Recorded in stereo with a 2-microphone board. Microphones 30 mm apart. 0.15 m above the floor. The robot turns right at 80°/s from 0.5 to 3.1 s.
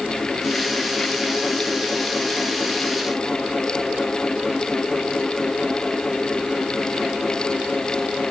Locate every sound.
Only background noise.